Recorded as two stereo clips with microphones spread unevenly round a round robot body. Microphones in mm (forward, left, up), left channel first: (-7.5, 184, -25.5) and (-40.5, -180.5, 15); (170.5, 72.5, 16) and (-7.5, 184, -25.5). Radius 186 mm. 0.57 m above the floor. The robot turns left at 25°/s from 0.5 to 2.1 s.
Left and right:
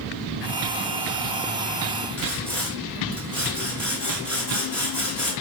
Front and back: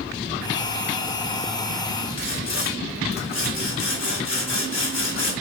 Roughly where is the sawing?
Ahead.